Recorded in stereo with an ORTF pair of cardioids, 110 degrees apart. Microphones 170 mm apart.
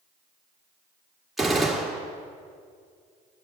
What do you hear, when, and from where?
1.4 s a gunshot: straight ahead, 2 m